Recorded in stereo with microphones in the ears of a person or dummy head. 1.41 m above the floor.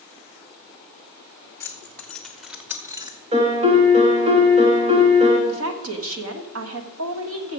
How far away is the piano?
About 2 m.